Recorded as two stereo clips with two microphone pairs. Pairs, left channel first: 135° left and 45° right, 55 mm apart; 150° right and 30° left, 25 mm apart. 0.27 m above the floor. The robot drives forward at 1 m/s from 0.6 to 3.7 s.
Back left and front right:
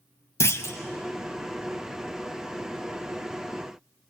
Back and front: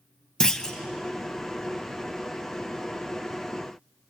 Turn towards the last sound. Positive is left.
turn(degrees=175)